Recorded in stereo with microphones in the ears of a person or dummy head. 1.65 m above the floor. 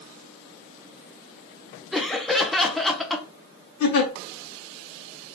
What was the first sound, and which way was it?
Laughter, centre (ahead or behind).